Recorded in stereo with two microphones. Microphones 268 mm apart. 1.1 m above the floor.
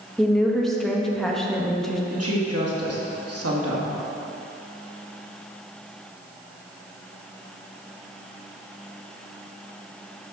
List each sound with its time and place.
0.2 s a woman speaking: centre (ahead or behind), 0.9 m
2.1 s a woman speaking: 70° right (ahead or behind), 1.6 m